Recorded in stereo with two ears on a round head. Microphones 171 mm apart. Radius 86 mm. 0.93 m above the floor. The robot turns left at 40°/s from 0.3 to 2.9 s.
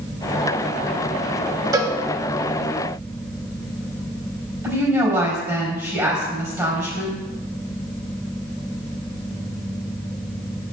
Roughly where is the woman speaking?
Centre.